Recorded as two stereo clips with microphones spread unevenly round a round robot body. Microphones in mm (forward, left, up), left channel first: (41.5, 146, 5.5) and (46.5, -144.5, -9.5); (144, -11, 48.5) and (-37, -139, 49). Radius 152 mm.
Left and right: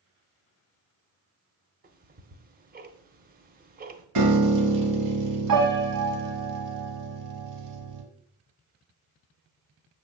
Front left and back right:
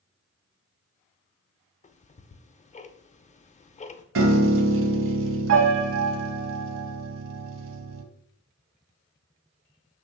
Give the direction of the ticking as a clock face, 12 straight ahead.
1 o'clock.